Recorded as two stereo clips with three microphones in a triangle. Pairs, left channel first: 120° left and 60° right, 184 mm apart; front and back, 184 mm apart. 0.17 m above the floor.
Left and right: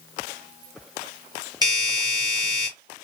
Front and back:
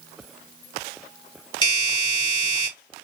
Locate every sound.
1.6 s a doorbell: 20° right, 1.5 m